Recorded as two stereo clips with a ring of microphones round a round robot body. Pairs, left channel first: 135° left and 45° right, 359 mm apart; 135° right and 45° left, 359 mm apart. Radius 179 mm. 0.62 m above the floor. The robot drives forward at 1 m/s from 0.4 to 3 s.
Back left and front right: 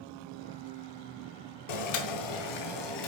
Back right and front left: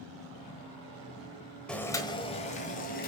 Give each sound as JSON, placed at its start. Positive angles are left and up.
{"t": 1.7, "sound": "boiling", "azimuth_deg": 135, "distance_m": 1.4}